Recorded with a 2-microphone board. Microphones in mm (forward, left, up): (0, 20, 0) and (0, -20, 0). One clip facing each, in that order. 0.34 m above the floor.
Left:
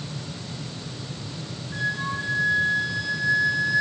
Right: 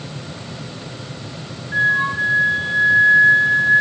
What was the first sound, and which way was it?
A flute, 45° right (ahead or behind).